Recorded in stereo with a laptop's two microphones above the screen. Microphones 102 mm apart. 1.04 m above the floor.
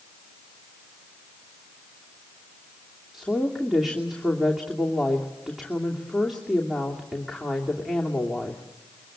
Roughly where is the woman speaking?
Centre.